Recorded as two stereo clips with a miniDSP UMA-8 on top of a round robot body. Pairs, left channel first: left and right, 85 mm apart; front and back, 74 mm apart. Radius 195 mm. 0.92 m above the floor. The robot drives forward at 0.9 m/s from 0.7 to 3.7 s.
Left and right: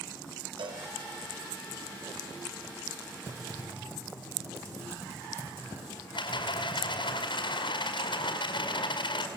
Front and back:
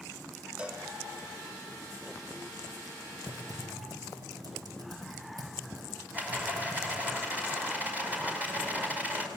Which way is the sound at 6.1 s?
110° left.